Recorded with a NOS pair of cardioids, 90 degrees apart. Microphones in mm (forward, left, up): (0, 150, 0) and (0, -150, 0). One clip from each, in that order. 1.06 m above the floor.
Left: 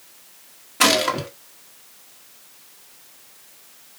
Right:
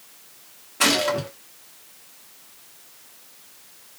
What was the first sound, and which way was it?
A gunshot, 20° left.